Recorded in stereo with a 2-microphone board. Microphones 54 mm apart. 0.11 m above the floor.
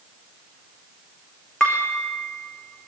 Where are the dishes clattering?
10° left (ahead or behind), 4.5 m.